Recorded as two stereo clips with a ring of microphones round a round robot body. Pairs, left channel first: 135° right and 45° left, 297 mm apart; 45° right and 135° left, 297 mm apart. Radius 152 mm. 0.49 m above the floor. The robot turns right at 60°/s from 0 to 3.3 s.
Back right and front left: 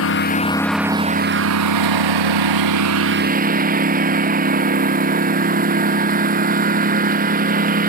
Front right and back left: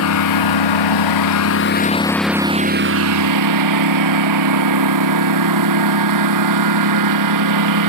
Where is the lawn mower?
90° right; by 7.9 s 110° left.